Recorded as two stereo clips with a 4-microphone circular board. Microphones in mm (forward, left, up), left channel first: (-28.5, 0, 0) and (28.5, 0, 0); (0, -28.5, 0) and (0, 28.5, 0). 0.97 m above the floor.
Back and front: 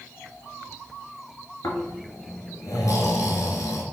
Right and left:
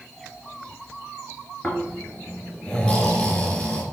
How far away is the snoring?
About 2 m.